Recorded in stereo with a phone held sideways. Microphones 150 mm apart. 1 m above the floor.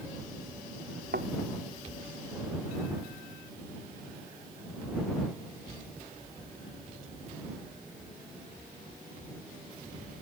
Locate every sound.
1.1 s a thud: 85° right